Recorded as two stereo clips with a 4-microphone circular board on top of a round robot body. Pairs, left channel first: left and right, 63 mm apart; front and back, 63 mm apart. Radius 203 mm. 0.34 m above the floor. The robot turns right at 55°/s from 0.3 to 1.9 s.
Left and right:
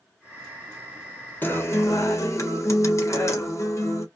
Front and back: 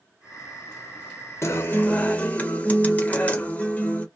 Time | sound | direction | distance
1.4 | a guitar | 35° left | 1.2 m